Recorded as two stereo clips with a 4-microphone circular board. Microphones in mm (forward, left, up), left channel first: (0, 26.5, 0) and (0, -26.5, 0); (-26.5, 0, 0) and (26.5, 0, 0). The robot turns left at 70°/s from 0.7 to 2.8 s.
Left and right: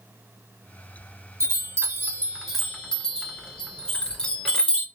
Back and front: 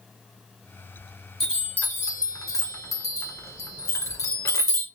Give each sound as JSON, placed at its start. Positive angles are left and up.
{"t": 1.4, "sound": "a chime", "azimuth_deg": -100, "distance_m": 1.8}